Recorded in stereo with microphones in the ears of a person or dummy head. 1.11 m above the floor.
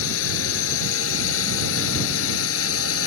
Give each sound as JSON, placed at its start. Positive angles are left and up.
{"t": 0.0, "sound": "a drone", "side_deg": 80}